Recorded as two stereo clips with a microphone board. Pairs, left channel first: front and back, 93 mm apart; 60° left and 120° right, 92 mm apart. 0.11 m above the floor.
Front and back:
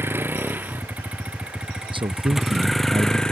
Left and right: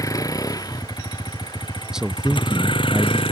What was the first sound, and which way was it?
A vehicle, 115° left.